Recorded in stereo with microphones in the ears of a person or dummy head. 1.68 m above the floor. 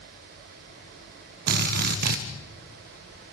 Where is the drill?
50° right (ahead or behind), 1.4 m.